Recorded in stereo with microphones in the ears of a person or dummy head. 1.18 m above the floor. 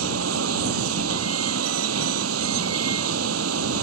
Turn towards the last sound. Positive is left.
turn(degrees=-80)